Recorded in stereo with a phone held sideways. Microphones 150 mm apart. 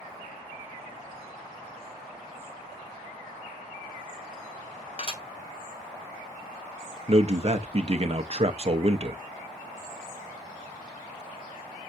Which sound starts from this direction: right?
A man speaking, at 7.1 s.